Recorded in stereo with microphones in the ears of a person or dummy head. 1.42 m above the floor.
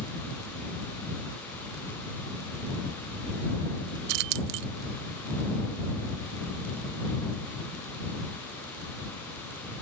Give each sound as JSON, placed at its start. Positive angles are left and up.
{"t": 4.1, "sound": "keys jangling", "side_deg": -65}